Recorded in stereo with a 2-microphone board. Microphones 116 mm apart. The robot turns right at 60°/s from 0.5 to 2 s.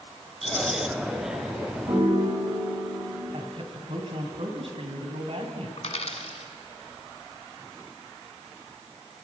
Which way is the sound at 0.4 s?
75° left (ahead or behind).